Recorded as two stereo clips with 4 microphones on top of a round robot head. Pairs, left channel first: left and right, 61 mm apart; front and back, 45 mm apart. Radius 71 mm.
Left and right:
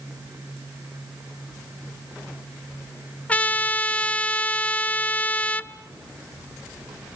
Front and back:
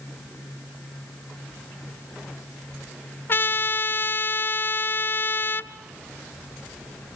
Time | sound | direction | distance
3.3 | a trumpet | 30° left | 0.8 m